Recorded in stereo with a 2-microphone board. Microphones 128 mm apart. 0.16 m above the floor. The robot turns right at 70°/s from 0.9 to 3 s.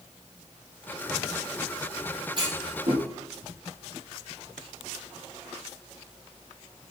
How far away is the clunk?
About 6 m.